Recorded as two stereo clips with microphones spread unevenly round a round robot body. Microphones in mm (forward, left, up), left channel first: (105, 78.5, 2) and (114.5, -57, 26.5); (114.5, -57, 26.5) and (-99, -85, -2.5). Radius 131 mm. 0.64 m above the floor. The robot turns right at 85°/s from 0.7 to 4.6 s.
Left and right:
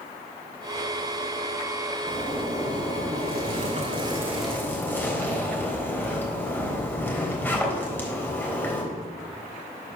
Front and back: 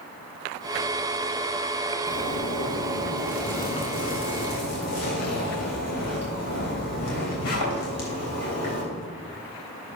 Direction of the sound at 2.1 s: 165° left.